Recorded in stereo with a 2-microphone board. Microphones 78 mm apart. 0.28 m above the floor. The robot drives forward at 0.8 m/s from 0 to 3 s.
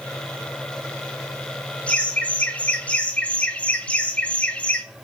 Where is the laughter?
20° left (ahead or behind), 1.5 m.